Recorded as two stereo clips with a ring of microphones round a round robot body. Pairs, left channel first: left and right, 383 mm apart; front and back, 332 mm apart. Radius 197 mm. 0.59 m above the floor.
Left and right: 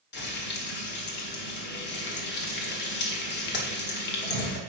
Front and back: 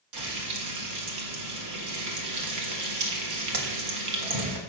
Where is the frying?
150° left, 1.6 m.